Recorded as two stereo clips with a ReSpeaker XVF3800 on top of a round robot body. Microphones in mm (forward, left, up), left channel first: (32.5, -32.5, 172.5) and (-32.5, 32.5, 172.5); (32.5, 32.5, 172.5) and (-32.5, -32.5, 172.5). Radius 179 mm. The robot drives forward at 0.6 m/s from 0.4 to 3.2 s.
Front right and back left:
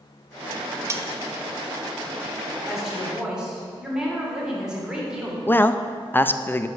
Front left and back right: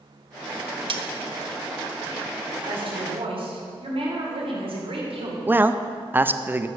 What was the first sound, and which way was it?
Cutlery clinking, 165° right.